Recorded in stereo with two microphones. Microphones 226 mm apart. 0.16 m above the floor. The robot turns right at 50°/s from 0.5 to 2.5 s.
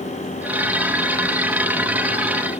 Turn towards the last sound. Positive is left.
No sound to turn to.